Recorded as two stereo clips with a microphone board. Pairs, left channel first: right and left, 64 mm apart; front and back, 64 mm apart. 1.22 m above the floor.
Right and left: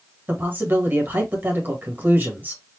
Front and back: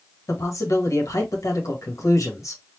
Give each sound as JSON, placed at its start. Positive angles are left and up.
{"t": 0.3, "sound": "a man speaking", "azimuth_deg": 35, "distance_m": 1.5}